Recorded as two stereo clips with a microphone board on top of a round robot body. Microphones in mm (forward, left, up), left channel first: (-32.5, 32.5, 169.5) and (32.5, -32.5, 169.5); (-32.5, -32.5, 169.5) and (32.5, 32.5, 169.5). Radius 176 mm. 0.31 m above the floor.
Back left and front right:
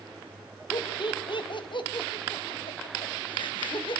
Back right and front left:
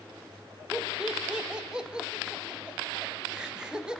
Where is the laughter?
125° left, 3.5 m.